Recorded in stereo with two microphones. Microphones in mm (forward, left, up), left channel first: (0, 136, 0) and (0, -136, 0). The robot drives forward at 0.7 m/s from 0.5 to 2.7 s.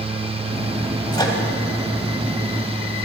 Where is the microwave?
15° left (ahead or behind), 1.3 m.